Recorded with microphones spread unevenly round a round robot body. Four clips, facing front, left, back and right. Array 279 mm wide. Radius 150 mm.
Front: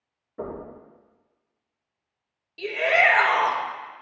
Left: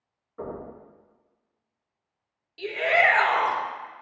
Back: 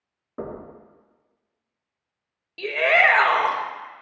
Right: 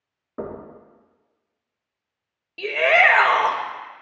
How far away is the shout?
About 1.5 m.